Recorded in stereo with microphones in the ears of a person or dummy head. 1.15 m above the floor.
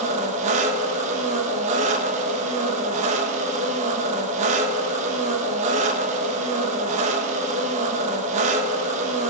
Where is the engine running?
40° right (ahead or behind), 1.1 m.